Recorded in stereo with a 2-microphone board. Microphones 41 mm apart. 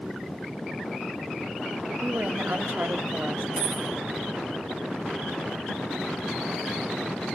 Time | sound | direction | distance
2.0 | a woman speaking | 50° right (ahead or behind) | 1.7 m
3.6 | a dropped coin | 10° right (ahead or behind) | 9 m